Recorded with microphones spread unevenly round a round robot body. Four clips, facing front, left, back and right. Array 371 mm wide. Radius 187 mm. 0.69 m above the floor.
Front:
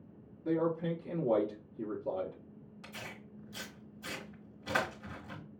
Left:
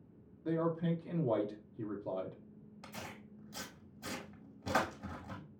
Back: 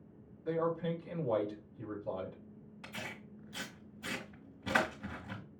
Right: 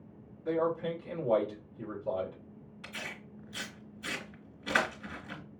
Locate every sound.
0.5 s a man speaking: 35° left, 1.6 m
2.8 s tearing paper: 130° left, 1.3 m